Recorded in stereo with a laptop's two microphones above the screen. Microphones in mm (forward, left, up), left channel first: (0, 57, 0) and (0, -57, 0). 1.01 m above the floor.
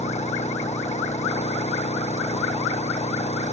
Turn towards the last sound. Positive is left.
turn(degrees=80)